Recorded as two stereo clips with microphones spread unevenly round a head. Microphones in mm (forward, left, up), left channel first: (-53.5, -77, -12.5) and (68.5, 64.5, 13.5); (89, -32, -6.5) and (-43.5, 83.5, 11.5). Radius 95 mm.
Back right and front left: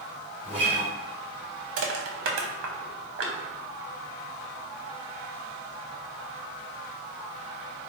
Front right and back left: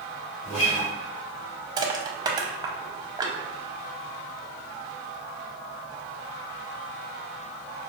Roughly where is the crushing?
Left.